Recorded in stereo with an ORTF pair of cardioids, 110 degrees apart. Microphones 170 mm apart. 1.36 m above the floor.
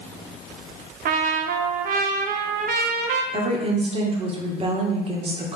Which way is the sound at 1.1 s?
55° right.